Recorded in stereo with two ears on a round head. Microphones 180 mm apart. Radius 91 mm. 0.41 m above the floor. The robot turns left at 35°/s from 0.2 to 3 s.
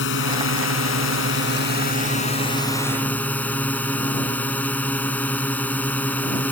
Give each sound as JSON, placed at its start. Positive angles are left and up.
{"t": 0.0, "sound": "a drone", "azimuth_deg": 105}